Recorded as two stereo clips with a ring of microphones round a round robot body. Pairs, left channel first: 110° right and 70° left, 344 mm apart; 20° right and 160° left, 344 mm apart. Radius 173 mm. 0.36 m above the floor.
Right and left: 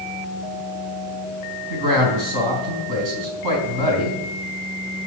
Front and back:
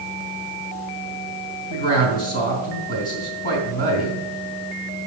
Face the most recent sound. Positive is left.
turn(degrees=45)